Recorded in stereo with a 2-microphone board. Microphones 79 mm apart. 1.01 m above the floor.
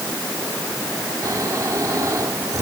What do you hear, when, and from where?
1.2 s snoring: 45° right (ahead or behind)